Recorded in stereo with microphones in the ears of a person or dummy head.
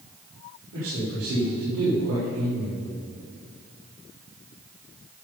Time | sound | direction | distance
0.7 | a man speaking | 90° right | 4.5 m